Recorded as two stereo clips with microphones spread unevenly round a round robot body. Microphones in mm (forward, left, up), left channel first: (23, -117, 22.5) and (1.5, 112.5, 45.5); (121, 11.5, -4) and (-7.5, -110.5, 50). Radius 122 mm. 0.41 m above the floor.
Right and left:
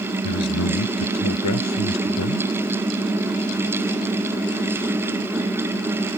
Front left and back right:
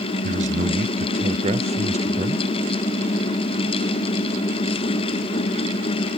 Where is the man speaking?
90° right; by 2.5 s 80° right.